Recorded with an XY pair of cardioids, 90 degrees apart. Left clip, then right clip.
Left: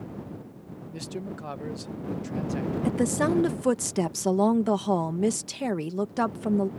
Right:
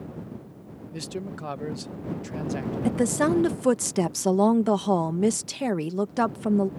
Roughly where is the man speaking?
Ahead right.